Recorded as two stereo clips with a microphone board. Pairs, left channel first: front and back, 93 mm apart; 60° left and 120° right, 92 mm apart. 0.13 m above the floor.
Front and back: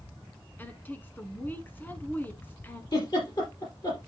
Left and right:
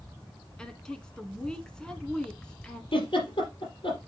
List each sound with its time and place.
0.6 s a woman speaking: 5° right, 1.0 m
2.9 s a giggle: 40° left, 4 m